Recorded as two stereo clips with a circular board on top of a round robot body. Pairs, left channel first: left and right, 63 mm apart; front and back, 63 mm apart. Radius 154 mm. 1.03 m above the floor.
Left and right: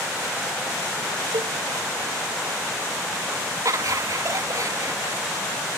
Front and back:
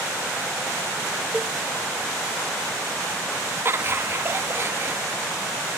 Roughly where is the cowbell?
Right.